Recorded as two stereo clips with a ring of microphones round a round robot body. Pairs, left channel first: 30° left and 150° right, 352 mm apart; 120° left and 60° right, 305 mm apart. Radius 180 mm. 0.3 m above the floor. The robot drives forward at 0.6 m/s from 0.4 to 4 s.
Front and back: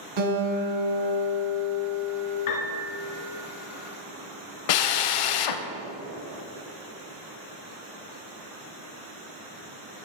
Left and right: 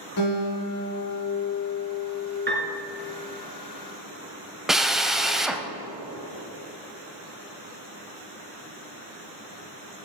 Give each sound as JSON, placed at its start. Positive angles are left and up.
{"t": 0.2, "sound": "a guitar", "azimuth_deg": 180, "distance_m": 3.5}
{"t": 2.5, "sound": "a piano", "azimuth_deg": -5, "distance_m": 2.0}
{"t": 4.7, "sound": "a drill", "azimuth_deg": 30, "distance_m": 0.8}